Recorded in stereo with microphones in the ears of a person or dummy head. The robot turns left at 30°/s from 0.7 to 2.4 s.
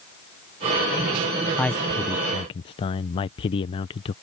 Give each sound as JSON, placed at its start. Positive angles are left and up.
{"t": 1.6, "sound": "a man speaking", "side_deg": 5}